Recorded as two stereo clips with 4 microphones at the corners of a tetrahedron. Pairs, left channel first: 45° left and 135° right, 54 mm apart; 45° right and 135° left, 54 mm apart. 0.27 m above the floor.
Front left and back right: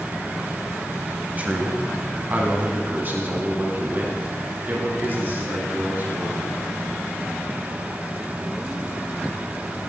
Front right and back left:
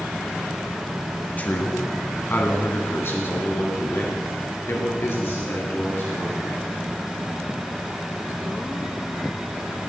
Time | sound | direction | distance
1.4 | a man speaking | 85° right | 1.5 m